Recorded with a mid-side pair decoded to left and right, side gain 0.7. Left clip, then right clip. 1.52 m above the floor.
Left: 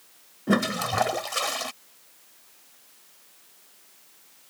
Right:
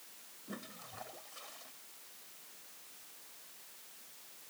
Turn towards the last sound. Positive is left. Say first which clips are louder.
# left 25 dB
turn(degrees=65)